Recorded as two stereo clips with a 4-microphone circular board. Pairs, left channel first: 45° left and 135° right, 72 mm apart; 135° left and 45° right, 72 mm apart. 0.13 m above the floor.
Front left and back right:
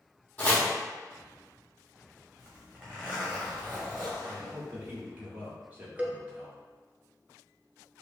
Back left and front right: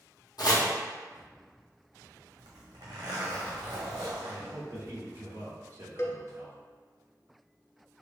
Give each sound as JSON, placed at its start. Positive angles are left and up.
{"t": 0.4, "sound": "chopping", "azimuth_deg": 115, "distance_m": 1.6}
{"t": 2.4, "sound": "a zipper", "azimuth_deg": -60, "distance_m": 1.7}
{"t": 4.2, "sound": "a man speaking", "azimuth_deg": -75, "distance_m": 1.6}
{"t": 6.0, "sound": "a cowbell", "azimuth_deg": 160, "distance_m": 0.7}